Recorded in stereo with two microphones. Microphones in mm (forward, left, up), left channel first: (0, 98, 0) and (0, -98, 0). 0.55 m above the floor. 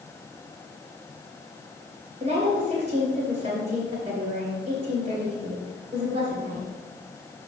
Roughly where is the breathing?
I don't hear breathing.